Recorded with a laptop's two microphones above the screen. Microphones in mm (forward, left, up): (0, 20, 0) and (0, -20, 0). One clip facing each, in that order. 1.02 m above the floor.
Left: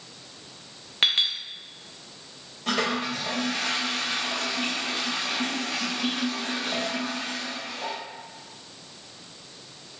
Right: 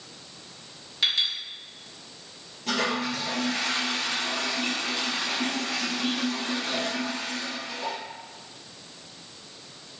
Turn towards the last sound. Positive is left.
turn(degrees=55)  # may be behind; listen again after turning